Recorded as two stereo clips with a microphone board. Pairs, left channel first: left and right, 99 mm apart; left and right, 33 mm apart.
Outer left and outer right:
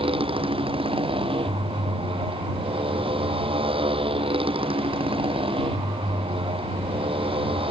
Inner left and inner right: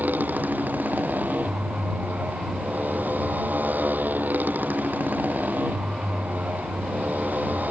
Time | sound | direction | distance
0.0 | a motorcycle | 65° right (ahead or behind) | ?